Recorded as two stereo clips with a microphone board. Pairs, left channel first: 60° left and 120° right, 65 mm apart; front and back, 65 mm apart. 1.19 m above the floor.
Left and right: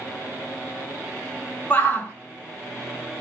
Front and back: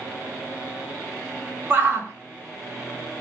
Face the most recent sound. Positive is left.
turn(degrees=125)